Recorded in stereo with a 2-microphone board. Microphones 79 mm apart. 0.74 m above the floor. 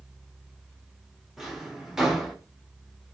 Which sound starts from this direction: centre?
A drawer, at 1.4 s.